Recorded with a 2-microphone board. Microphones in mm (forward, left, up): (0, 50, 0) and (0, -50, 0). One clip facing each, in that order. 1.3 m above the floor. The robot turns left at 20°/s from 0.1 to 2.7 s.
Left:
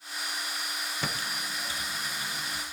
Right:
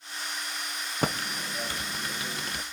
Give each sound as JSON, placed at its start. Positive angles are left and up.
{"t": 1.0, "sound": "typing on a keyboard", "side_deg": -50, "distance_m": 0.9}